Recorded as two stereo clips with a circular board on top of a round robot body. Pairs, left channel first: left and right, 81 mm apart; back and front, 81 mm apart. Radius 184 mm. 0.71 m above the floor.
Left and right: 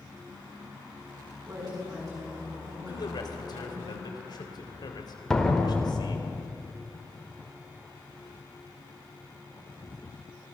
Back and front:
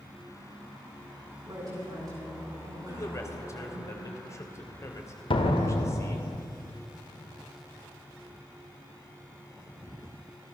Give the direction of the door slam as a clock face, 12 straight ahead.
6 o'clock.